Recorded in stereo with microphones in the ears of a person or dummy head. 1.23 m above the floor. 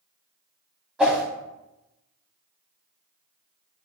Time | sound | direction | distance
1.0 | a whoosh | centre (ahead or behind) | 0.9 m